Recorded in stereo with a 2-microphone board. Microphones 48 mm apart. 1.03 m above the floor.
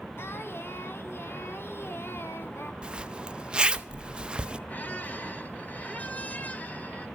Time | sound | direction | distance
0.2 | singing | 55° left (ahead or behind) | 1.3 m
2.8 | a zipper | 20° right (ahead or behind) | 0.6 m
4.7 | a squeak | 35° left (ahead or behind) | 1.4 m